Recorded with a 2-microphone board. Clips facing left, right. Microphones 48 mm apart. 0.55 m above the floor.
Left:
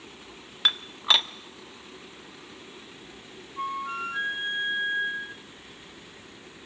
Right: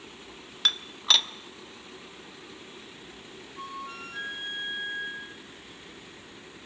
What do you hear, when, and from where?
0.7 s dishes clattering: 20° left (ahead or behind), 0.6 m
3.6 s a flute: 35° left (ahead or behind), 0.9 m